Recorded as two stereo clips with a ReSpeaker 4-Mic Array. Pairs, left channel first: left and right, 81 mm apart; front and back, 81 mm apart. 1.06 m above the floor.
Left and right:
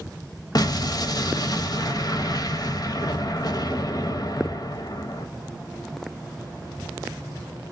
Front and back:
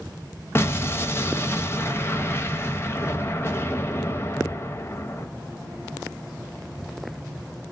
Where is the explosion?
60° left, 0.6 m.